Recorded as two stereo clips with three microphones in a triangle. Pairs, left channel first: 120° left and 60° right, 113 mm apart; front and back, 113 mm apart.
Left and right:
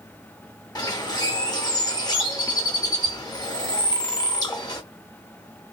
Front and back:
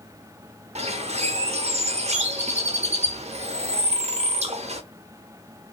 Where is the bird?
170° left, 0.7 m.